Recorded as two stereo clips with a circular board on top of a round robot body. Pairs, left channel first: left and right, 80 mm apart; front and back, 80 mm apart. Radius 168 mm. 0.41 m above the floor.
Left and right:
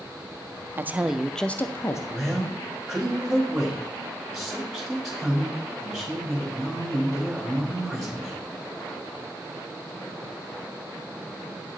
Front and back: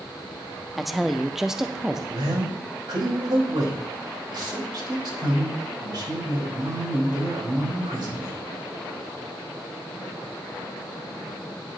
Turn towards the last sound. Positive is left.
turn(degrees=180)